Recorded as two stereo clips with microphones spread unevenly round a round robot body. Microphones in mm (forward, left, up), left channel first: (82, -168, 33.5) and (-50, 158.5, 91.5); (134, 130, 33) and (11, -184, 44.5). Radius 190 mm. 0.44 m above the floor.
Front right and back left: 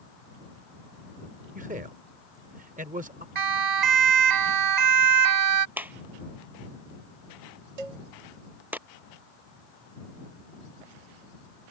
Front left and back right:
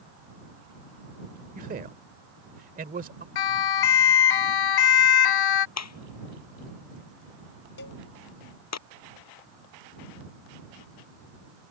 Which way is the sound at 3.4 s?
85° left.